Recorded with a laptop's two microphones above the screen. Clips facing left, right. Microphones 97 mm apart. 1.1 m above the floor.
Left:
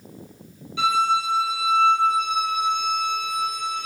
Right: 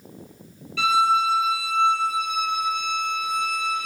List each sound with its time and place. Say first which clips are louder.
0.8 s a violin: right 1 dB; 20° left (ahead or behind), 0.9 m